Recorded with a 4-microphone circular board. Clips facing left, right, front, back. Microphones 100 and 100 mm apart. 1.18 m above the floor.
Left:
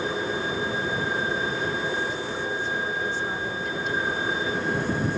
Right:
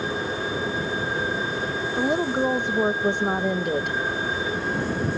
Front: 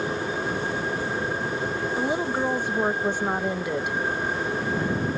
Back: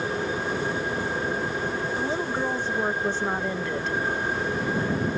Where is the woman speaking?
75° right.